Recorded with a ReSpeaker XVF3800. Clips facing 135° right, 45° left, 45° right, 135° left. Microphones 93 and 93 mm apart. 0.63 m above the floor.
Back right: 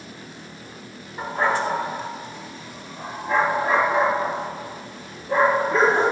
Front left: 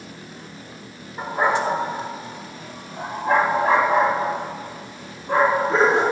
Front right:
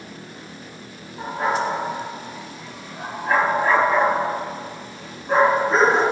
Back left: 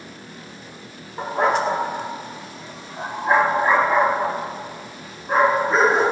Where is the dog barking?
130° left, 1.1 m; by 6.0 s 45° left, 3.5 m.